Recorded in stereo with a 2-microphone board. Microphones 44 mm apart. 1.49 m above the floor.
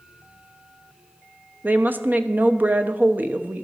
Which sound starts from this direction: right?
A woman speaking, at 1.6 s.